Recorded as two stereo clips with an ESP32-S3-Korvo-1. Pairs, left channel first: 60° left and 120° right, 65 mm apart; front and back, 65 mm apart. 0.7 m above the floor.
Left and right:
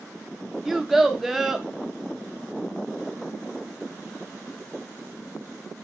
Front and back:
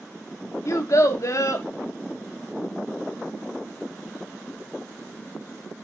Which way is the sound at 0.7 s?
35° right.